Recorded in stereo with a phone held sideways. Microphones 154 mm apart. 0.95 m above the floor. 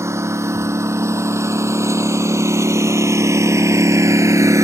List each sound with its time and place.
0.0 s a lawn mower: 20° right (ahead or behind)